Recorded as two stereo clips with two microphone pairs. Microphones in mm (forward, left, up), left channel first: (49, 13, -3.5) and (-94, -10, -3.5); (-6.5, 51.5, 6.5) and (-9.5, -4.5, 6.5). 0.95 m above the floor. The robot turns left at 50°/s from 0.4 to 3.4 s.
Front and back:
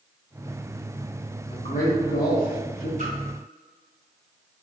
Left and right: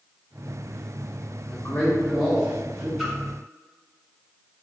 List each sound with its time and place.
1.5 s a man speaking: 40° left, 1.2 m; by 2.9 s 30° right, 1.2 m
3.0 s a splash: straight behind, 1.4 m; by 3.1 s 175° left, 1.4 m